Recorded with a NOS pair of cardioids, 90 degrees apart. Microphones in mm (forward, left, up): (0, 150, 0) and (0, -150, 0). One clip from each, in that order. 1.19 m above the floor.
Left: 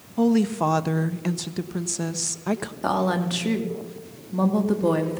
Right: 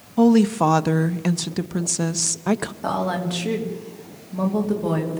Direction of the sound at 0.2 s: 20° right.